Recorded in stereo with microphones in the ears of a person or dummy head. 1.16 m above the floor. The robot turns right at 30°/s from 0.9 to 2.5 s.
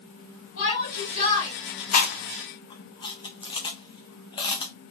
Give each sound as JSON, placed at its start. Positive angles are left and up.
{"t": 0.6, "sound": "a shout", "side_deg": 65, "distance_m": 2.5}
{"t": 1.9, "sound": "chewing", "side_deg": 40, "distance_m": 0.7}